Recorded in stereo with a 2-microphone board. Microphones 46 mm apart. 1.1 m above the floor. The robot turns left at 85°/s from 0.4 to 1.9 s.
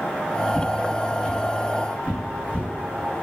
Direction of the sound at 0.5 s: 5° left (ahead or behind).